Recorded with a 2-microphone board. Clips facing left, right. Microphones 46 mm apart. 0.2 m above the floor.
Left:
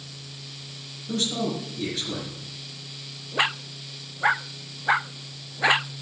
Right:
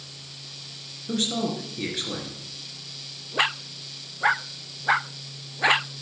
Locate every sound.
1.1 s a man speaking: 30° right (ahead or behind), 4 m